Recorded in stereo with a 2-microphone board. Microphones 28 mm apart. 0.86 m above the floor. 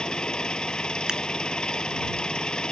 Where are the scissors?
30° right (ahead or behind).